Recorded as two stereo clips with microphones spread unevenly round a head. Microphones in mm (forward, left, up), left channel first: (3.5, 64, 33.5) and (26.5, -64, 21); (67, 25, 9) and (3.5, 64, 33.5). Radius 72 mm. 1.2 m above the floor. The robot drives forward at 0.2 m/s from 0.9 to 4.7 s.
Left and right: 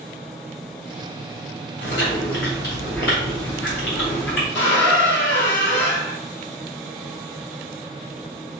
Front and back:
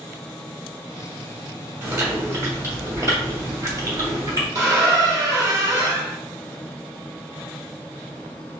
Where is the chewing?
95° left, 2.5 m; by 4.5 s 110° left, 2.5 m.